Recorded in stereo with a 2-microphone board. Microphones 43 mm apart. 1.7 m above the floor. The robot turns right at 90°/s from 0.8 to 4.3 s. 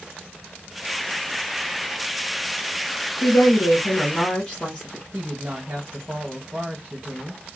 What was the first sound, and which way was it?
A woman speaking, 70° left.